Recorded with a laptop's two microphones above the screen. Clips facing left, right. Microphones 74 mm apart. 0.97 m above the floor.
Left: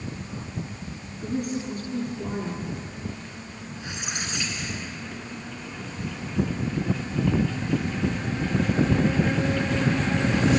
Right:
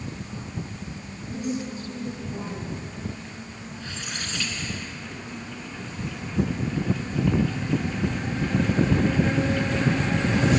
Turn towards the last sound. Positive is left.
turn(degrees=20)  # may be behind; listen again after turning